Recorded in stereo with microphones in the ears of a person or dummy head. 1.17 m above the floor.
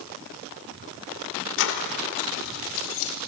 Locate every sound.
1.6 s keys jangling: 65° left (ahead or behind), 2 m; by 3.1 s 70° left (ahead or behind), 4 m